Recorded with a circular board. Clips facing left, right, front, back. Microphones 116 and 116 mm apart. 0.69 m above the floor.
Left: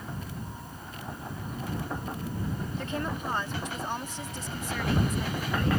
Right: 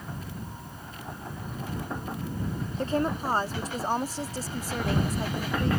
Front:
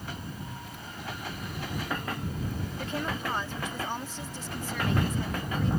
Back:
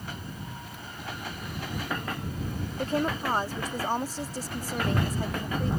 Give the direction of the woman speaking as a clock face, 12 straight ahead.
5 o'clock.